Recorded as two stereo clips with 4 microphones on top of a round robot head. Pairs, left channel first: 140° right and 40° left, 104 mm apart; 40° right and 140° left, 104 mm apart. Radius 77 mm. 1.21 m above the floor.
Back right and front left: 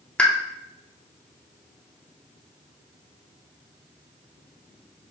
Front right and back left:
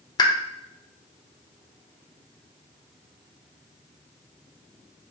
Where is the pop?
65° right, 0.8 m.